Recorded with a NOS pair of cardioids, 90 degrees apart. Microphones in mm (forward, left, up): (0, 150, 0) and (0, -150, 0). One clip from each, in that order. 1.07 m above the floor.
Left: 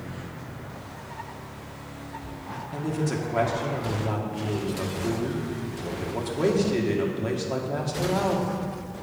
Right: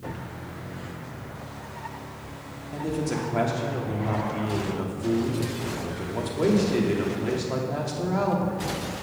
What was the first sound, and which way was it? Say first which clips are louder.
A man speaking: right 1 dB; 5° left.